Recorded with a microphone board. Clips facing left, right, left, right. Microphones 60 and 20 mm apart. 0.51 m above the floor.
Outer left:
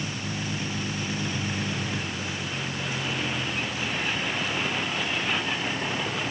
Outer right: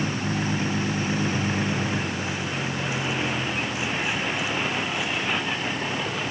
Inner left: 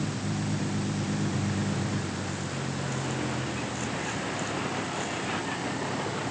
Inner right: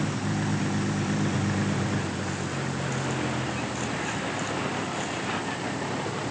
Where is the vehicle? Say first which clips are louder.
Outer right 6 dB, inner right 3 dB; 35° right (ahead or behind); by 6.3 s 5° right (ahead or behind).